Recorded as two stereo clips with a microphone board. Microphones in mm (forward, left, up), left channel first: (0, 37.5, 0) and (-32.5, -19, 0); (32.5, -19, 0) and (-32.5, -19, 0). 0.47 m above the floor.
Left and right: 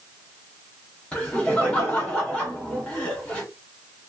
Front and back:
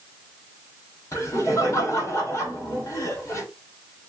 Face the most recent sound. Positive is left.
turn(degrees=-5)